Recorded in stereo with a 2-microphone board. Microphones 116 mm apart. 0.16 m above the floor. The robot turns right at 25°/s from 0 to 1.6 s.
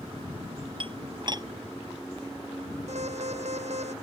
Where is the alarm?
75° right (ahead or behind).